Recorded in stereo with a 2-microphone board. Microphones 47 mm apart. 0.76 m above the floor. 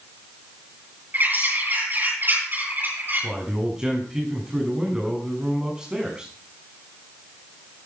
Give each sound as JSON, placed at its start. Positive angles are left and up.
{"t": 1.1, "sound": "a bird", "side_deg": -45, "distance_m": 9.5}
{"t": 3.2, "sound": "a man speaking", "side_deg": -15, "distance_m": 6.5}